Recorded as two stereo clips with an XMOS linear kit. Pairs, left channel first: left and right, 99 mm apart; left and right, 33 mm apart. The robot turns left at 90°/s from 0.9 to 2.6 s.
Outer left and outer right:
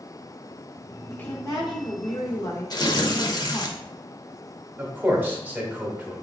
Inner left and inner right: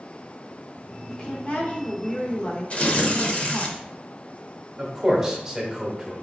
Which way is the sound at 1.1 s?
170° left.